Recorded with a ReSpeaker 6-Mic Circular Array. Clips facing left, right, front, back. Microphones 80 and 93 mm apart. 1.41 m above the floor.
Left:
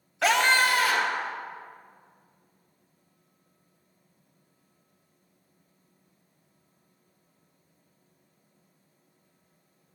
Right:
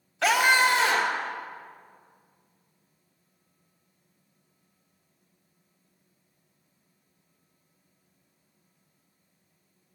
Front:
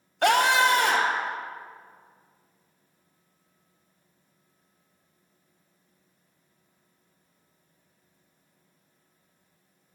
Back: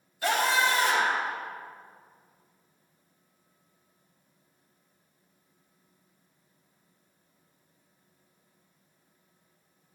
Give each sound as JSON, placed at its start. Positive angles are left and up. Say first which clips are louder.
{"t": 0.2, "sound": "a scream", "louder": "right 1 dB, front 5 dB", "azimuth_deg": 0, "distance_m": 0.7}